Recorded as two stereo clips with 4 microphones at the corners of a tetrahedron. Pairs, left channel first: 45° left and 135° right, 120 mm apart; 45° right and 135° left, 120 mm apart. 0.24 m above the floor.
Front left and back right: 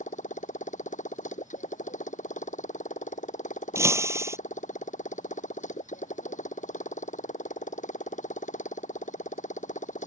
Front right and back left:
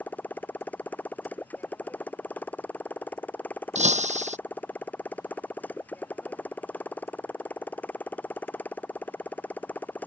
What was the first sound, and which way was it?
A motorcycle, 30° left.